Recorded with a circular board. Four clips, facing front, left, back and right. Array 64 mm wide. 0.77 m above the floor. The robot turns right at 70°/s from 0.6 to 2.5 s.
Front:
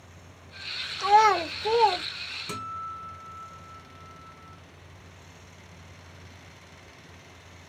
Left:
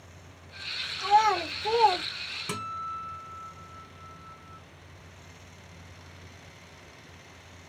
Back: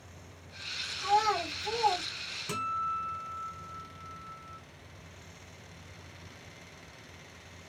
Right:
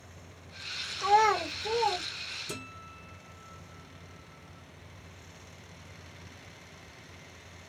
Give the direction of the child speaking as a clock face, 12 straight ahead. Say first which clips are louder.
Left 1 dB, front 8 dB; 1 o'clock.